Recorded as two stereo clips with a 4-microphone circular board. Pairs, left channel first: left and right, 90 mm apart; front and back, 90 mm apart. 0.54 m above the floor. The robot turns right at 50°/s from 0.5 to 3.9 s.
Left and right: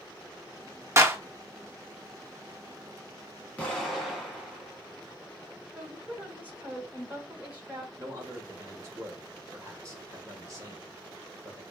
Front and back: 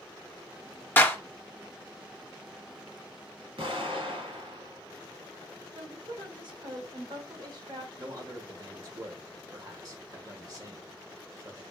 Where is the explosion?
165° left, 1.6 m; by 5.5 s straight behind, 1.6 m.